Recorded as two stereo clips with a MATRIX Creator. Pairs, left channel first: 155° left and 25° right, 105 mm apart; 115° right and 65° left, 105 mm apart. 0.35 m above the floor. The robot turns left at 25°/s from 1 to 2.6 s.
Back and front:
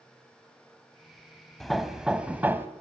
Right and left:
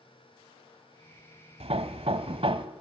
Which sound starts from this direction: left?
Hammering, at 1.6 s.